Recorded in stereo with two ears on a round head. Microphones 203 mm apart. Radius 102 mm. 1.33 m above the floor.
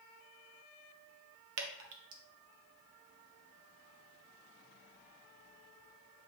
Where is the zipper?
No zipper in this recording.